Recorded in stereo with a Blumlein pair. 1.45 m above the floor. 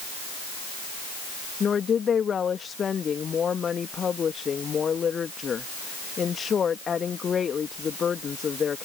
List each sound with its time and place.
1.6 s a woman speaking: 20° left